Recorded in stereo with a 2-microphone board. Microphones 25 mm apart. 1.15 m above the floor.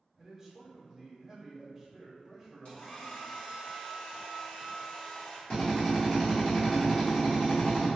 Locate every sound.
0.2 s a man speaking: 15° right (ahead or behind), 0.9 m
2.6 s a hair dryer: 45° left (ahead or behind), 1.5 m
5.5 s a drill: 25° left (ahead or behind), 1.6 m